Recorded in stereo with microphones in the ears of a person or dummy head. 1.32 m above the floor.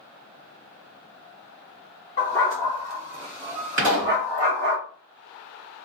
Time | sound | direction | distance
2.2 | a dog barking | 15° left (ahead or behind) | 1.1 m
3.8 | a pop | 50° right (ahead or behind) | 1.7 m